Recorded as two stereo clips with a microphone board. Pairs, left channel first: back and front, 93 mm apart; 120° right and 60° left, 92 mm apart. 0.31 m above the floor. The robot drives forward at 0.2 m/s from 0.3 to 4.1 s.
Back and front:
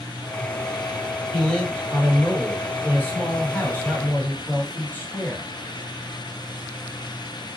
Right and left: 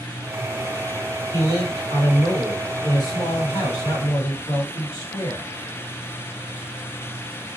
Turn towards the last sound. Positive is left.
turn(degrees=-120)